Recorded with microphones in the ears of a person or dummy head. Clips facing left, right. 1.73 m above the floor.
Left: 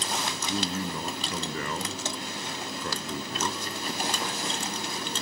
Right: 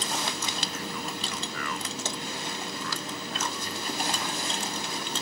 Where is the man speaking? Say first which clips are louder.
Left 5 dB; 25° left (ahead or behind).